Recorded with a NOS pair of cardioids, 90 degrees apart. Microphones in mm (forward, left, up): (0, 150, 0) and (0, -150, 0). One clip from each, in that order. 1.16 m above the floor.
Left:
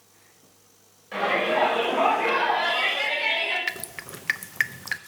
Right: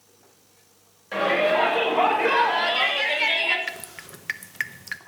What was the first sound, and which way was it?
A shout, 30° right.